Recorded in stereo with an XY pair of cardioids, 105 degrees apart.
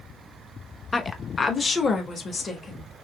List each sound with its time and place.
0.9 s a woman speaking: 25° left, 0.8 m; by 2.9 s 40° left, 1.7 m